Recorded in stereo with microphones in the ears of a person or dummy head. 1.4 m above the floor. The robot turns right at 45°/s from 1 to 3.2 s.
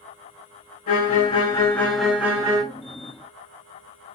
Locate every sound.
0.9 s a violin: 135° left, 0.6 m; by 2.6 s 150° right, 0.6 m